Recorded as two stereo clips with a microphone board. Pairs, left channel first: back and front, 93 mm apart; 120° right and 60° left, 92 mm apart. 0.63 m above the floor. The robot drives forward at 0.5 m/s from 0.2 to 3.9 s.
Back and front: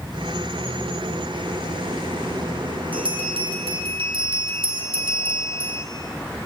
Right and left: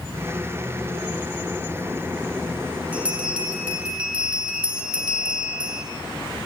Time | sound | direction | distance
2.9 | a bell | 15° right | 5.5 m